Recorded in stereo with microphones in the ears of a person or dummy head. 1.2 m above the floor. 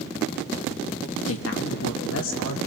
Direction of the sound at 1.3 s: 80° left.